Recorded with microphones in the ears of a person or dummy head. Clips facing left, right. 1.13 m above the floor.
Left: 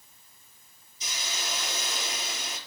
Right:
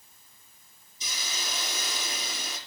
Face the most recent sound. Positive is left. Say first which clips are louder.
# left 1 dB
turn(degrees=-80)